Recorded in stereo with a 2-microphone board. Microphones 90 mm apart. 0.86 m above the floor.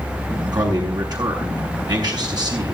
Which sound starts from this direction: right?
A man speaking, at 0.5 s.